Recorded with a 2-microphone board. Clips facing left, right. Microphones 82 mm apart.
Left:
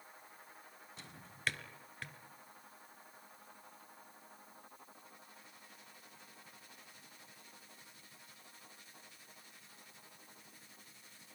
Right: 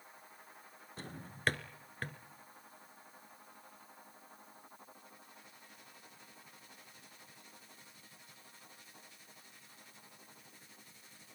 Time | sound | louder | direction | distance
1.0 | a drawer | right 8 dB | 45° right (ahead or behind) | 1.1 m